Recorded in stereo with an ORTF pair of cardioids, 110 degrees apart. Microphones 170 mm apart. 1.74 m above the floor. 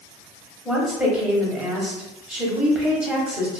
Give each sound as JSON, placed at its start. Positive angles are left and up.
{"t": 0.7, "sound": "a woman speaking", "azimuth_deg": -5, "distance_m": 1.0}